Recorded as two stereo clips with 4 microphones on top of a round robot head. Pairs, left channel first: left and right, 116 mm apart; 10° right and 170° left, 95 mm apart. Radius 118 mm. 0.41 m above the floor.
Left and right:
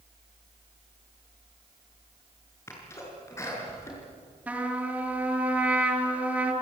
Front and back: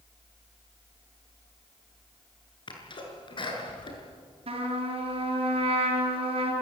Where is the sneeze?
20° left, 6.5 m.